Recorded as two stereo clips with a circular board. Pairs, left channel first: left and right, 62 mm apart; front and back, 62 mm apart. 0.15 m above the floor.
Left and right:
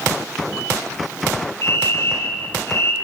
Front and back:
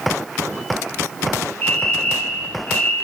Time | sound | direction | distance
1.6 | a fire alarm | 55° left | 4.5 m